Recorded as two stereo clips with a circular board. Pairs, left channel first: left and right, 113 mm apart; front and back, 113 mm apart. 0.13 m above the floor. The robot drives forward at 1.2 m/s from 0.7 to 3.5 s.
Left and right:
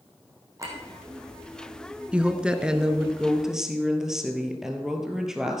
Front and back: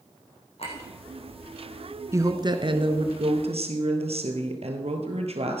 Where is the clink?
25° right, 4 m.